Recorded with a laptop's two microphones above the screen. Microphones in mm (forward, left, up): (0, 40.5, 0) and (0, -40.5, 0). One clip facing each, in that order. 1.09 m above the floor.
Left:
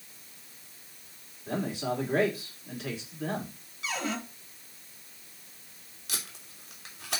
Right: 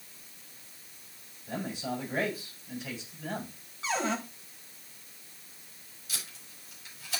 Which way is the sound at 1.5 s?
75° left (ahead or behind).